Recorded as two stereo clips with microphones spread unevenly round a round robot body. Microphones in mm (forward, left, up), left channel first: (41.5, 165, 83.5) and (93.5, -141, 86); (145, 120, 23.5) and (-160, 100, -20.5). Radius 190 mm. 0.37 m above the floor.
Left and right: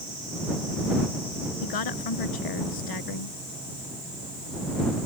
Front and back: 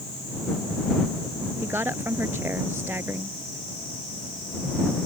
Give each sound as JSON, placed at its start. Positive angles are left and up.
{"t": 1.6, "sound": "a woman speaking", "azimuth_deg": 100}